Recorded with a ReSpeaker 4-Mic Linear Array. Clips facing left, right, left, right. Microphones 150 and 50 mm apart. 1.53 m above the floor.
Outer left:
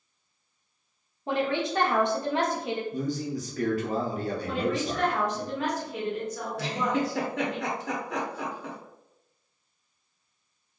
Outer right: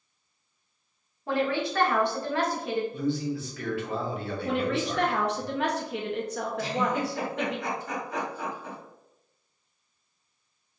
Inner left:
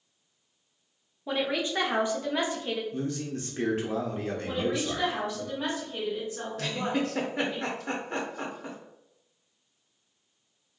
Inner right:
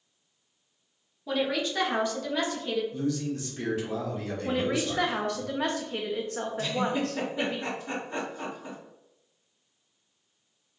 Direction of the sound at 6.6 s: 75° left (ahead or behind).